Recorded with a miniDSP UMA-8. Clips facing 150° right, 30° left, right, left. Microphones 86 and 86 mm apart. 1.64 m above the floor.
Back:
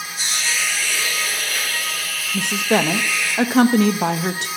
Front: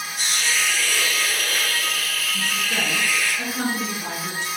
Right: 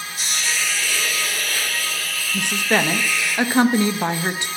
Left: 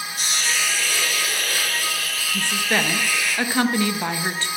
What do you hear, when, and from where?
0.2 s a hiss: 60° left, 4 m
2.3 s a woman speaking: 160° right, 0.6 m